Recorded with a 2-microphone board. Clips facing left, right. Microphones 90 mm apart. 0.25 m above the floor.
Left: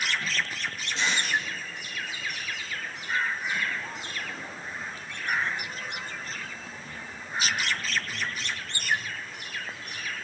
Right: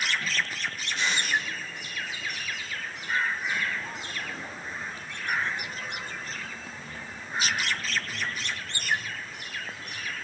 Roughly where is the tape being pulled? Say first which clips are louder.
Left 1 dB; left.